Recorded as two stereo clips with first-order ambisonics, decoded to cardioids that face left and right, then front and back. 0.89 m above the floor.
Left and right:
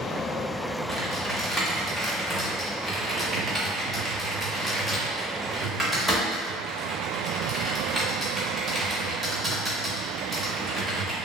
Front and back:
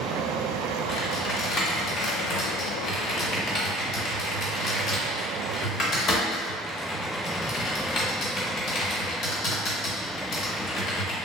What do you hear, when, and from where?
0.9 s typing on a keyboard: 5° left, 0.7 m